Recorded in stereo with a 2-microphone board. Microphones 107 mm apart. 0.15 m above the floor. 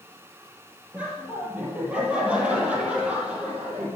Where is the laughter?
10° right (ahead or behind), 4.5 m.